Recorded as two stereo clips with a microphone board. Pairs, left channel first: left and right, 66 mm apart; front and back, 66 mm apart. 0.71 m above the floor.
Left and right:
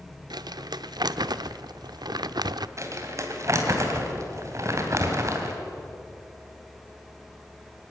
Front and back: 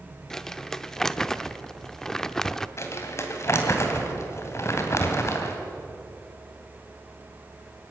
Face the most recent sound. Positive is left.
turn(degrees=-50)